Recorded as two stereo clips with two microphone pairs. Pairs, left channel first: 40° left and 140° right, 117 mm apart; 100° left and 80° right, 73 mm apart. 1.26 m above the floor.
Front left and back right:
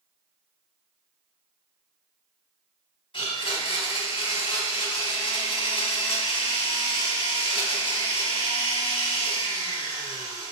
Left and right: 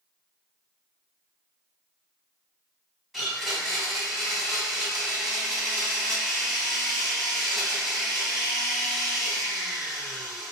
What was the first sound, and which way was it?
A blender, 5° left.